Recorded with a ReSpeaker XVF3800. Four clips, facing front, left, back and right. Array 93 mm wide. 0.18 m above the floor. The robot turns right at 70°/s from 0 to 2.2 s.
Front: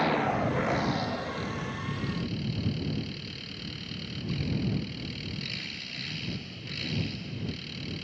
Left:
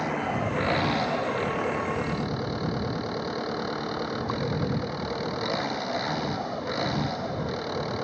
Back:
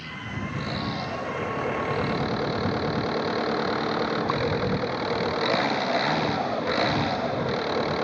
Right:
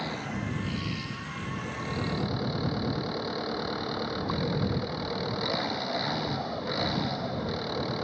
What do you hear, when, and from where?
0.0 s an engine running: 20° left; by 8.0 s 170° left